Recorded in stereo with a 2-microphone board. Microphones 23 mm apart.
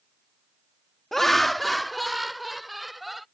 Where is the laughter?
10° left (ahead or behind); by 3.2 s 5° right (ahead or behind).